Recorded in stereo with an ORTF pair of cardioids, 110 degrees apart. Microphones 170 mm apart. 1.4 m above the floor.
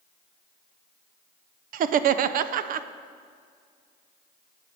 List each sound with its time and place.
1.7 s laughter: 55° right, 0.6 m